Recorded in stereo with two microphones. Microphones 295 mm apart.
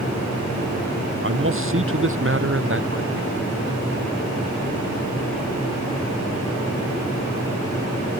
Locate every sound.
1.2 s a man speaking: 45° right (ahead or behind)